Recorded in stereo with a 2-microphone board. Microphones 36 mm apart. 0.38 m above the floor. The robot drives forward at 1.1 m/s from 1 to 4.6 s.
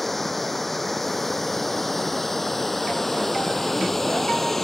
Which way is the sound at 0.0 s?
5° left (ahead or behind).